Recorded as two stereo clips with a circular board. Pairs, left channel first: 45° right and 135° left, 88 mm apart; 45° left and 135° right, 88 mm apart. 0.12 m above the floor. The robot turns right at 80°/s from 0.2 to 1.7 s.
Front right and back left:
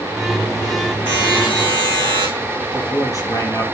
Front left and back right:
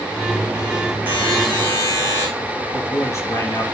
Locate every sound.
1.1 s a buzzer: 70° right, 6 m; by 2.3 s 15° right, 6 m
2.7 s a man speaking: 5° right, 2.5 m